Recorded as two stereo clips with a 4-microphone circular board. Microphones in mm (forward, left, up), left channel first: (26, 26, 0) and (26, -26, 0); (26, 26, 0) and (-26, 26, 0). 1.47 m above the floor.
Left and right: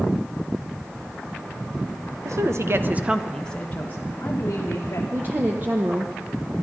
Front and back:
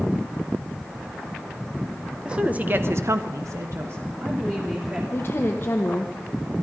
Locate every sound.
2.2 s a woman speaking: 105° right, 1.3 m; by 5.0 s 130° left, 2.5 m
5.1 s a woman speaking: 40° right, 1.0 m